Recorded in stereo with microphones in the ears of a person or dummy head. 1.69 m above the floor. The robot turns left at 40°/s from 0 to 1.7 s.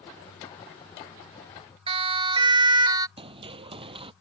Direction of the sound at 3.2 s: 25° right (ahead or behind).